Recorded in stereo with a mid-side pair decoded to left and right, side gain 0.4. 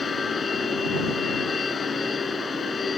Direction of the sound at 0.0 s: 45° left.